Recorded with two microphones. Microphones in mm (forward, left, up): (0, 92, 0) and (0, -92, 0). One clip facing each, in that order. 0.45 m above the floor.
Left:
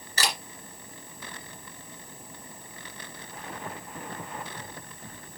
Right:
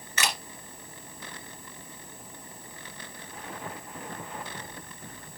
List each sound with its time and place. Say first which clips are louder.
0.2 s a camera shutter: left 1 dB; 35° left (ahead or behind), 2.5 m